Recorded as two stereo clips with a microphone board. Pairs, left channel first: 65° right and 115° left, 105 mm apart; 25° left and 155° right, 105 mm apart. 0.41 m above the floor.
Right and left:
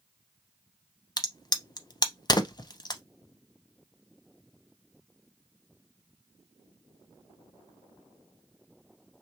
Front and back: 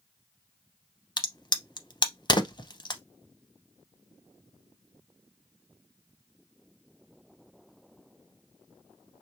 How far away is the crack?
About 0.5 m.